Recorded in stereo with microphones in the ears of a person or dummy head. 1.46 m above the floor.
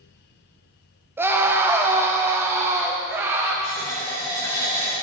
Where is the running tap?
20° left (ahead or behind), 6.5 m.